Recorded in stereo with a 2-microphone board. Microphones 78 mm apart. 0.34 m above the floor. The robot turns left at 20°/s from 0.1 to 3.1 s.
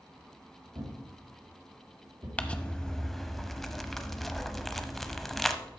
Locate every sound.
0.8 s a thud: 85° right, 4 m; by 2.3 s 65° right (ahead or behind), 4 m
2.4 s crumpling: 15° left (ahead or behind), 0.7 m; by 5.6 s centre (ahead or behind), 0.7 m